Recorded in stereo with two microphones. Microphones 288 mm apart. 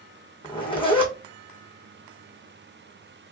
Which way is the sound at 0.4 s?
20° left (ahead or behind).